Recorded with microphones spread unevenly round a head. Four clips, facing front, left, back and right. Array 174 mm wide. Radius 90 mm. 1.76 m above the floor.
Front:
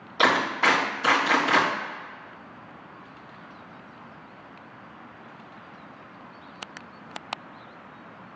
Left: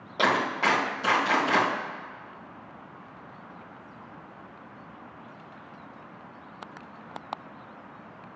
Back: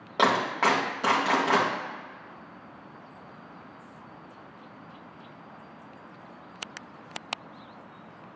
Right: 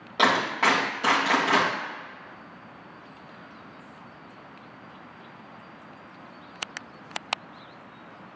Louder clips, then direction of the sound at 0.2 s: Right 2 dB, front 1 dB; straight behind.